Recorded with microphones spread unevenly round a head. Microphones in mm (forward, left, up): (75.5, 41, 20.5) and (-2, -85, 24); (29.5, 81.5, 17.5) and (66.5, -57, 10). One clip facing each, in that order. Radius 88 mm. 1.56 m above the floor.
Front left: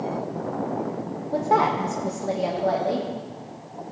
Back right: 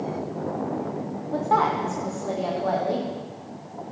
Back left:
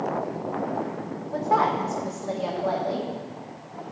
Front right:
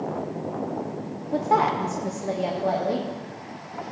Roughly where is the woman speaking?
Ahead.